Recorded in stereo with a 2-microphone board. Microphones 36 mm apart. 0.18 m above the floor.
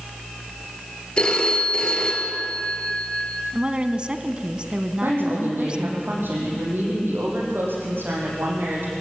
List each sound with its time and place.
1.2 s a phone ringing: 30° left (ahead or behind), 2.5 m
3.5 s a woman speaking: 30° right (ahead or behind), 1.2 m
5.0 s a woman speaking: 80° right, 8 m